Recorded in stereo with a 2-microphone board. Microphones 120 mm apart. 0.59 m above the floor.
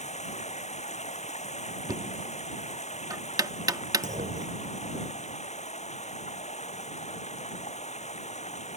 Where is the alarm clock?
I don't hear an alarm clock.